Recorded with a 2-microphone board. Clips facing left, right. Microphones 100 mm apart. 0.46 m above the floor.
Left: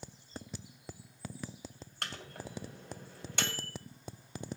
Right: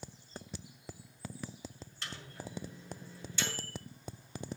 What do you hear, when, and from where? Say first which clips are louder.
2.0 s a microwave: left 2 dB; 65° left (ahead or behind), 1.9 m